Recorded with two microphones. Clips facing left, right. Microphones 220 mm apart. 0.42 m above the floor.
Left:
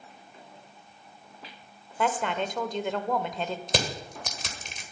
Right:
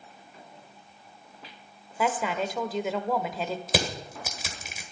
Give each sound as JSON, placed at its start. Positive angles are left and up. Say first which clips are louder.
{"t": 2.0, "sound": "a woman speaking", "louder": "even", "side_deg": -5, "distance_m": 1.1}
{"t": 3.7, "sound": "crushing", "louder": "right 1 dB", "side_deg": -5, "distance_m": 1.6}